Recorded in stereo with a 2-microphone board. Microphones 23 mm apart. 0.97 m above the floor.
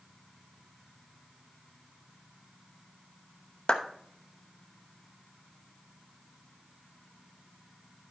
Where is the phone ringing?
I don't hear a phone ringing.